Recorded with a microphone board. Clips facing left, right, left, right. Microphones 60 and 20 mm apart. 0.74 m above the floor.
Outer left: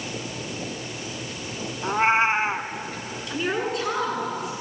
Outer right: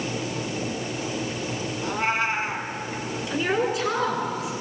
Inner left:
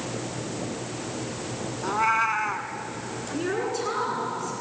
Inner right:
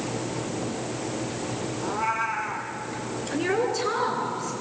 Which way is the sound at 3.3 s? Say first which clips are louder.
Outer right 2 dB, inner right 3 dB; 5° right (ahead or behind).